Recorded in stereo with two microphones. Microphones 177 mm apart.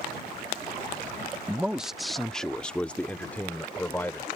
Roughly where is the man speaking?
Centre.